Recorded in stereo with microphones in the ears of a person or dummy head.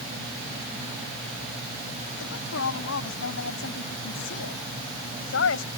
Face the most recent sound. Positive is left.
turn(degrees=85)